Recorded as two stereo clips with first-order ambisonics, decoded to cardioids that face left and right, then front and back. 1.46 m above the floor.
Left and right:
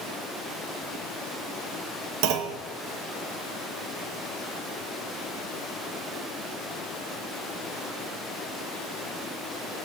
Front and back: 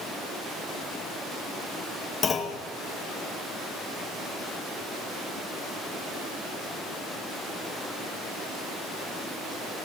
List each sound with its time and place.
2.2 s a clunk: 70° right, 1.5 m